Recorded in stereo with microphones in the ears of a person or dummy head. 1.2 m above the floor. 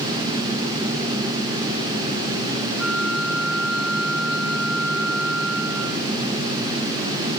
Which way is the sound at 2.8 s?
5° right (ahead or behind).